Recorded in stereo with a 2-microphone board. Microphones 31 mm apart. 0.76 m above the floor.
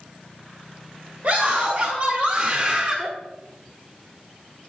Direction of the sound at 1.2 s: 50° right (ahead or behind).